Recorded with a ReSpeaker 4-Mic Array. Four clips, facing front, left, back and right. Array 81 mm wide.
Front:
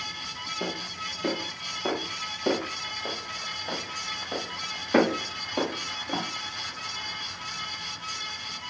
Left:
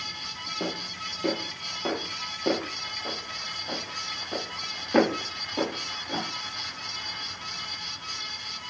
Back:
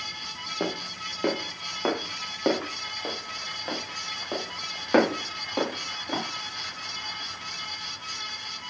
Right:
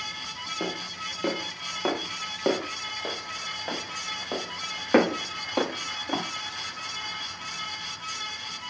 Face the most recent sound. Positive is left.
turn(degrees=-120)